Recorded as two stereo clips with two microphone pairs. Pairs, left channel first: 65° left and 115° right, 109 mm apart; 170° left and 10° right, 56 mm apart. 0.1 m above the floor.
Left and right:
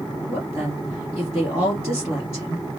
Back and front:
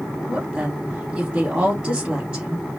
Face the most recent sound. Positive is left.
turn(degrees=-50)